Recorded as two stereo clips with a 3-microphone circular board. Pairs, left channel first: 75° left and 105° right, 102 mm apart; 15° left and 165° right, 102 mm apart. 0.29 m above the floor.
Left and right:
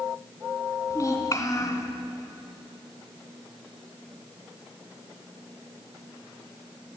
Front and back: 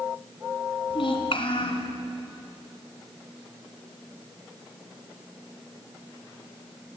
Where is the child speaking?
15° left, 2 m.